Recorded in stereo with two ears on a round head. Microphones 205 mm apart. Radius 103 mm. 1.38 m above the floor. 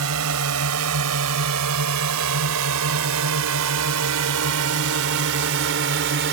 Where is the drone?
80° right; by 6.3 s 55° right (ahead or behind).